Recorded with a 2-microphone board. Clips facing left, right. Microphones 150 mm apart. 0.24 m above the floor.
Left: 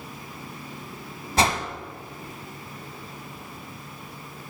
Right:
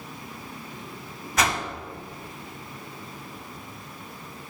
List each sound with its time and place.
1.4 s a whoosh: 30° left (ahead or behind), 0.7 m